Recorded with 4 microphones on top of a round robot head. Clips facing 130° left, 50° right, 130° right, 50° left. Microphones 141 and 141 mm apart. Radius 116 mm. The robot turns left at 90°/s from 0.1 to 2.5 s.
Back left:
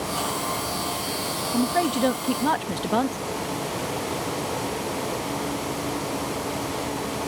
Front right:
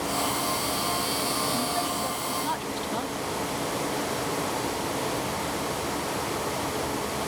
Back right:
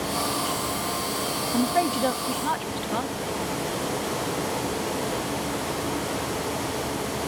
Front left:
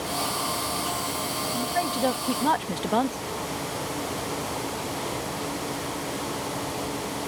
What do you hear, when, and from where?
1.5 s a woman speaking: 175° right; by 3.2 s 95° left